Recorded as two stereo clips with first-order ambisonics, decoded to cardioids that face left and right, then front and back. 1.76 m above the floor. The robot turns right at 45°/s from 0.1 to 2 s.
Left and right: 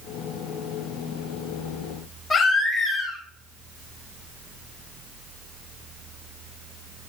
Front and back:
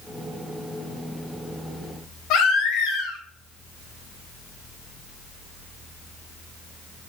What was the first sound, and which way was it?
A baby crying, 20° left.